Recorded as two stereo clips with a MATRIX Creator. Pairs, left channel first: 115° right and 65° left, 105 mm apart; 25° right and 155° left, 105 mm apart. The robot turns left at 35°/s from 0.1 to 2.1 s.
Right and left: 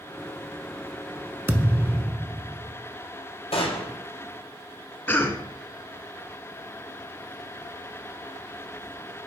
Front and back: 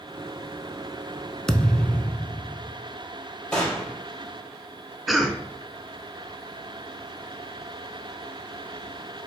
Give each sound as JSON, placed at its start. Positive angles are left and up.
{"t": 1.5, "sound": "a thud", "azimuth_deg": 55, "distance_m": 0.5}
{"t": 3.5, "sound": "a gunshot", "azimuth_deg": -105, "distance_m": 2.5}
{"t": 5.1, "sound": "a cough", "azimuth_deg": -115, "distance_m": 1.1}